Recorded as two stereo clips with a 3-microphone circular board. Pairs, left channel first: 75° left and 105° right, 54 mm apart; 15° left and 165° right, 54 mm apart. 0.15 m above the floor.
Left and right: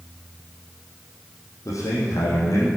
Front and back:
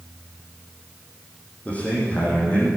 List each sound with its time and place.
1.6 s a man speaking: 80° left, 5 m